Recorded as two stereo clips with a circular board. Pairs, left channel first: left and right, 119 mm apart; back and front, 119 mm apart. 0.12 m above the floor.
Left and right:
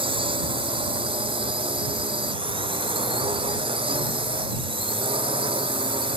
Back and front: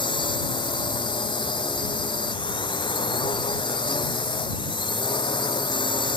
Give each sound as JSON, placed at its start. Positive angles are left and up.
{"t": 0.0, "sound": "a drone", "azimuth_deg": -135}